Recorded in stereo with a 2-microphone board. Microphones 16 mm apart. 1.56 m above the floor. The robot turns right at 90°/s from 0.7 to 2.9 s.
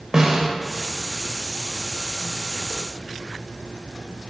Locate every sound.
0.1 s a snare drum: 35° right (ahead or behind), 1.7 m